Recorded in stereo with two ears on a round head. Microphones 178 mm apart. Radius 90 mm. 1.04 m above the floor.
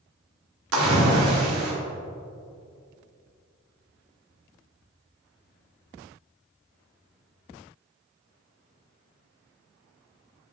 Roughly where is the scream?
No scream in this recording.